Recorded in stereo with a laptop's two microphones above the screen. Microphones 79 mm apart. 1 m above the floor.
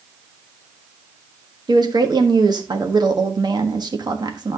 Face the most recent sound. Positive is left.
turn(degrees=-60)  # may be behind; listen again after turning